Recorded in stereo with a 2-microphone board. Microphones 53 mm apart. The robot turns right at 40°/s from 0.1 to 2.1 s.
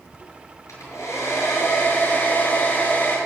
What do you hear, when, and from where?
0.7 s a hair dryer: 80° left, 6 m; by 3.2 s 135° left, 6 m